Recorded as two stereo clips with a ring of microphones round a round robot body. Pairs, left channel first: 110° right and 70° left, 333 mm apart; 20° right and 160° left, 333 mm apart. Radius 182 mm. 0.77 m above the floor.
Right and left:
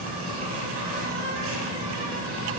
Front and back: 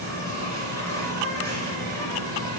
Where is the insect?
60° left, 2 m.